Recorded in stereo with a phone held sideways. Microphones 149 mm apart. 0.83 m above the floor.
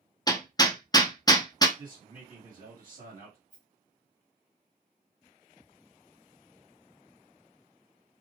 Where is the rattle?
55° right (ahead or behind), 1.5 m.